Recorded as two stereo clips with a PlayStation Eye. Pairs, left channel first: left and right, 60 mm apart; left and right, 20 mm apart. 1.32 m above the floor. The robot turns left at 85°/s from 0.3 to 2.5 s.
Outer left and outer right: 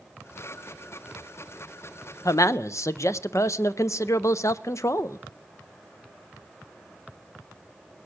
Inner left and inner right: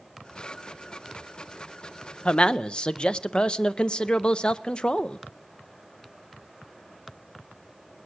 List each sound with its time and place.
2.2 s a man speaking: 65° left (ahead or behind), 0.5 m; by 5.2 s 55° left (ahead or behind), 0.5 m